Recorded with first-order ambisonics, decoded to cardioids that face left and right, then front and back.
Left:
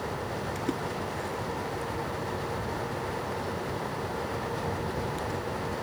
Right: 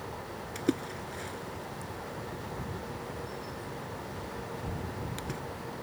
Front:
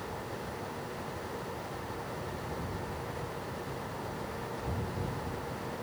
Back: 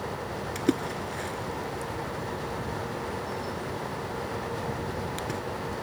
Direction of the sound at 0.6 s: 165° right.